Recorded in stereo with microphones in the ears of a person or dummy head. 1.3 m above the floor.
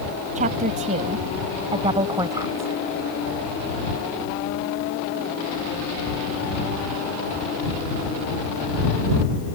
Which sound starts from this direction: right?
A woman speaking, at 0.3 s.